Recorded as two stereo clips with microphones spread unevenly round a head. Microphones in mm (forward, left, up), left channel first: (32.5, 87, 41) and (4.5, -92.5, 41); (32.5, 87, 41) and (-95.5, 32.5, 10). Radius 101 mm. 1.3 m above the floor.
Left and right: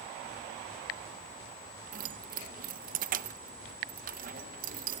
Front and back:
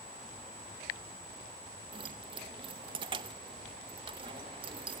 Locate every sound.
1.9 s keys jangling: 90° right, 0.5 m